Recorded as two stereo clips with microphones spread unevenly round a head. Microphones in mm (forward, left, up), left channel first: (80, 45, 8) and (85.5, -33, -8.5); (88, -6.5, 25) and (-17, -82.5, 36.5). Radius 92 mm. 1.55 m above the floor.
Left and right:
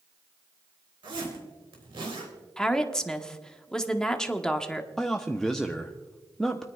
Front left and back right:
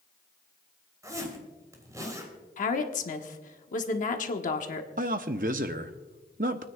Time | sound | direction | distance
1.0 | a zipper | 80° right | 3.5 m
2.6 | a woman speaking | 15° left | 1.3 m
5.0 | a man speaking | 175° left | 0.6 m